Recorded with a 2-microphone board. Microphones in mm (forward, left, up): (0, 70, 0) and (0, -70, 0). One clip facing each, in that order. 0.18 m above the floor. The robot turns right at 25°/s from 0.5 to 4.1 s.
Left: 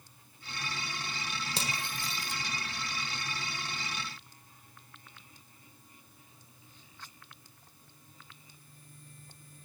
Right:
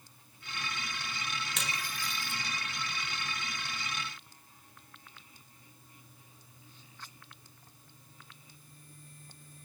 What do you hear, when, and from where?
1.6 s cutlery clinking: 35° left (ahead or behind), 1.3 m; by 2.4 s 15° left (ahead or behind), 1.3 m